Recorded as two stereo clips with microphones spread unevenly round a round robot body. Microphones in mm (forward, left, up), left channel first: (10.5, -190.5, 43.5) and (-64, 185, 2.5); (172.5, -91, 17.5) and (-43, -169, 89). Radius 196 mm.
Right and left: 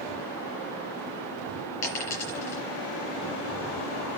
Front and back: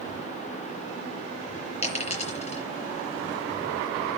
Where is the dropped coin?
45° right, 5.5 m.